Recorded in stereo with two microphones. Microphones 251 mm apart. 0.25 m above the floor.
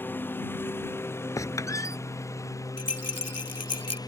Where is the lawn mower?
10° left (ahead or behind); by 4.1 s 15° left (ahead or behind).